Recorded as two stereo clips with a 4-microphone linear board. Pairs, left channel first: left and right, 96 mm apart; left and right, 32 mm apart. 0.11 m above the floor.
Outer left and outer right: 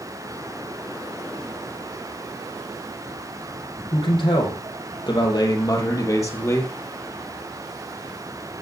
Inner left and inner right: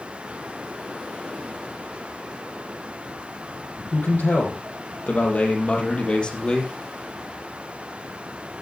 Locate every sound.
3.9 s a man speaking: 60° left (ahead or behind), 4 m; by 6.7 s 25° left (ahead or behind), 2.5 m